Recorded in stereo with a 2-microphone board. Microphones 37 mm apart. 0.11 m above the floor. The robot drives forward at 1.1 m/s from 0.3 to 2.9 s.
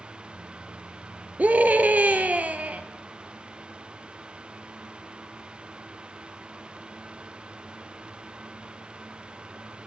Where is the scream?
45° right (ahead or behind), 2.5 m; by 2.8 s 40° right (ahead or behind), 2.5 m.